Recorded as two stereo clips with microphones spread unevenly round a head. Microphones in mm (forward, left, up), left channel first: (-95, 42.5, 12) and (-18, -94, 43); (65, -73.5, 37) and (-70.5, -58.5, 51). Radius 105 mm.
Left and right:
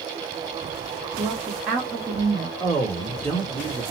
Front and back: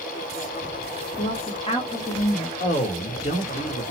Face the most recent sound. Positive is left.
turn(degrees=40)